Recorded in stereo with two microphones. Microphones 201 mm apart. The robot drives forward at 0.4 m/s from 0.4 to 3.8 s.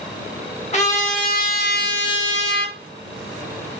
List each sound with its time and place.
0.7 s a trumpet: 35° left (ahead or behind), 0.8 m; by 2.8 s 55° left (ahead or behind), 0.5 m